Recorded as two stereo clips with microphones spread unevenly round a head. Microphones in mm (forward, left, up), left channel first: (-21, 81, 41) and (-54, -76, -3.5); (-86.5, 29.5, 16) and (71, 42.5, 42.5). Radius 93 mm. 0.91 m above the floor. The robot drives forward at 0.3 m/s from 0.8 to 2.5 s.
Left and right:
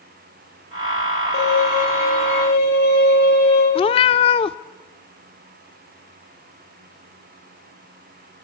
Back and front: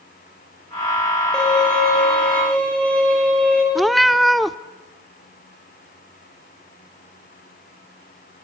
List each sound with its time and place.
1.3 s a violin: 100° left, 9 m
3.8 s a cat meowing: 85° left, 0.6 m